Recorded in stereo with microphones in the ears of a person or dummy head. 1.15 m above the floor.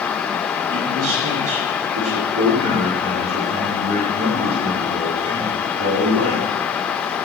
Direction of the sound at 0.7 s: 85° right.